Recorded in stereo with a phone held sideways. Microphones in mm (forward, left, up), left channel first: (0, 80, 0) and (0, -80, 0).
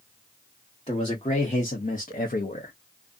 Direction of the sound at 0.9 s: 35° left (ahead or behind).